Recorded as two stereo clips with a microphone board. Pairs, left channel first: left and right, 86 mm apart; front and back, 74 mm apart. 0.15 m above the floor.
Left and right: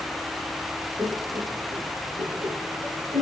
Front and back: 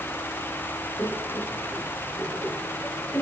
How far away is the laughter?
About 3.5 m.